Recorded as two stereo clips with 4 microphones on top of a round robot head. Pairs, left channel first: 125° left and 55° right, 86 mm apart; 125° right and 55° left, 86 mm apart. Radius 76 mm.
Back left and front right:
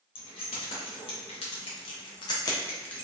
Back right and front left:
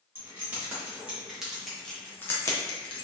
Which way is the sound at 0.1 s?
120° left.